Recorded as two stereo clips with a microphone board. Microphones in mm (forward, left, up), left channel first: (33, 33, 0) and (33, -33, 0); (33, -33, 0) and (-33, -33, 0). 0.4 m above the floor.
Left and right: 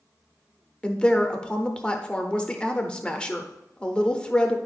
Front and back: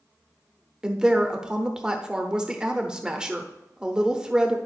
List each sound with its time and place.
0.8 s a woman speaking: 130° left, 0.7 m